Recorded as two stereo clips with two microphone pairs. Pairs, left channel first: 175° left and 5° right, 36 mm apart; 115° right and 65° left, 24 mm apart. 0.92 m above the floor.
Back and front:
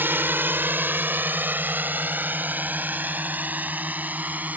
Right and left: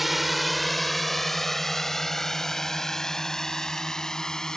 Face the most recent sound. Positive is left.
turn(degrees=-45)